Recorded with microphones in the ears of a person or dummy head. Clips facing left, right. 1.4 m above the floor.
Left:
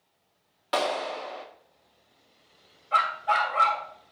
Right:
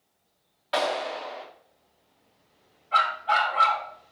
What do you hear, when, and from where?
0.7 s a clap: 65° left (ahead or behind), 3 m
2.9 s a dog barking: 55° left (ahead or behind), 2 m